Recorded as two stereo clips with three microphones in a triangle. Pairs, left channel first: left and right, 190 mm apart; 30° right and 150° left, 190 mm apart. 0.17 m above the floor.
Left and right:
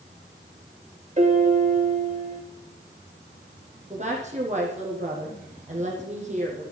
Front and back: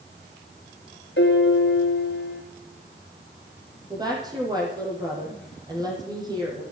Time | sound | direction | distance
1.2 | a piano | 40° right | 3 m
3.9 | a woman speaking | 140° right | 7.5 m